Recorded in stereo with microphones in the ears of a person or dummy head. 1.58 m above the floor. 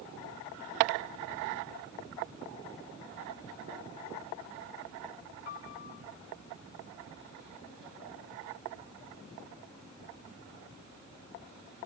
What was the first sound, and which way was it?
A piano, 55° left (ahead or behind).